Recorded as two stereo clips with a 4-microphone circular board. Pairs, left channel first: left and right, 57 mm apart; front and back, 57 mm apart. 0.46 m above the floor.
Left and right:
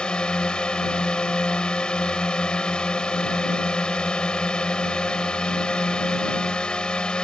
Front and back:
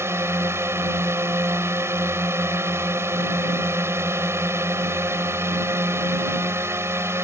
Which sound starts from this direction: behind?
A drone, at 0.0 s.